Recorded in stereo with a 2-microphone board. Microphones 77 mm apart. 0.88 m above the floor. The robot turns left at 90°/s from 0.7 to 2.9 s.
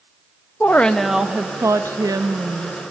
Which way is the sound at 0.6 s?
30° left.